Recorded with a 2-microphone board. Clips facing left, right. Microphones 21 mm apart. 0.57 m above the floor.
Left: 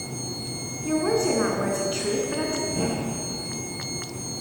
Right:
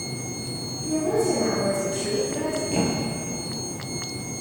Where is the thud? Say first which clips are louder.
Right 2 dB; 60° right (ahead or behind), 6 m.